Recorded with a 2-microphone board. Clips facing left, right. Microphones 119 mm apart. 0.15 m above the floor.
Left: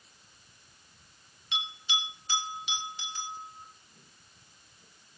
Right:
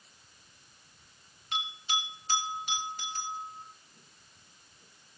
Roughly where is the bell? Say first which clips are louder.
Right 2 dB; right.